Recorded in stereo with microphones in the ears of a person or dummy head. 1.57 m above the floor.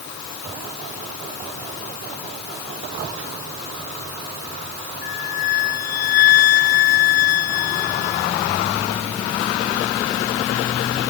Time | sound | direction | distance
5.0 | a flute | 55° left (ahead or behind) | ?